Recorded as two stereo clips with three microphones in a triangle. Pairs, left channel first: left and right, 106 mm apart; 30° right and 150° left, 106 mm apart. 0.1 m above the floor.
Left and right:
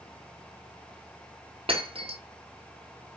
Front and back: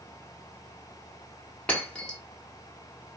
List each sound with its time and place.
1.7 s breaking glass: 110° right, 1.2 m